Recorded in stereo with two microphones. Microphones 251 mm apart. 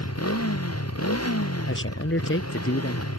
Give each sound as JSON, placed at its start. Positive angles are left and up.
{"t": 0.0, "sound": "a motorcycle", "side_deg": 75}
{"t": 1.7, "sound": "a man speaking", "side_deg": 55}